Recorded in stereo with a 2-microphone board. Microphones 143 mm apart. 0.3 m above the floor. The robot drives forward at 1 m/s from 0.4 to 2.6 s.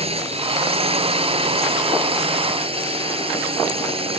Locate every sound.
0.0 s a drone: 45° right (ahead or behind); by 4.2 s 40° right (ahead or behind)